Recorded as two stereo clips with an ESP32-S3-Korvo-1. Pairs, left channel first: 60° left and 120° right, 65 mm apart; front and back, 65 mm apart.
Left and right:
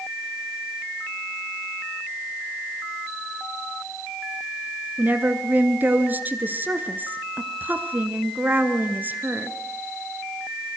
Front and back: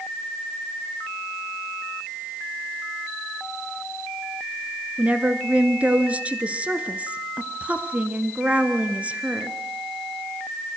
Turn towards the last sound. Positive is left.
turn(degrees=-135)